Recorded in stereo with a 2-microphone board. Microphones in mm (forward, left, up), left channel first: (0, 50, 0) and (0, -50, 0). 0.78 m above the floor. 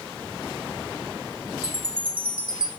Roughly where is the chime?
Right.